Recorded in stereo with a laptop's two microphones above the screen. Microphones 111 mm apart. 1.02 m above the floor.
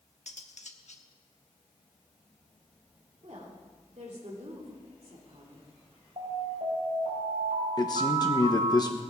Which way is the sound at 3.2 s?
70° right (ahead or behind).